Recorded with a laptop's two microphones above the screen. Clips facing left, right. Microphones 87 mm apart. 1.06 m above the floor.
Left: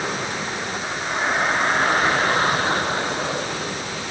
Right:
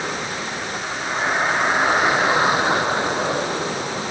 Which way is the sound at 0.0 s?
Centre (ahead or behind).